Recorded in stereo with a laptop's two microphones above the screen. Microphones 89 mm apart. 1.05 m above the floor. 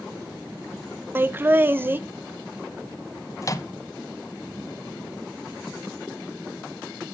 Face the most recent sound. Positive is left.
turn(degrees=40)  # may be behind; listen again after turning